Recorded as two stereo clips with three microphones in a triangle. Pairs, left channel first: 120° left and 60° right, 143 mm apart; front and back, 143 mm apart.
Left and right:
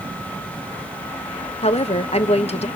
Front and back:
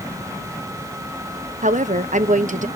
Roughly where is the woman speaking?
Behind.